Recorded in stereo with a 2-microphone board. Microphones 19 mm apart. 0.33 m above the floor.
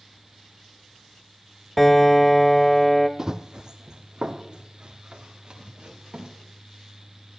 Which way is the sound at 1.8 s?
15° left (ahead or behind).